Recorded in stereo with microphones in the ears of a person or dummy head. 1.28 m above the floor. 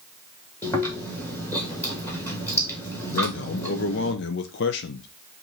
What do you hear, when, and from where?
0.6 s chewing: 15° left (ahead or behind), 1.6 m
3.1 s a man speaking: 60° left (ahead or behind), 0.6 m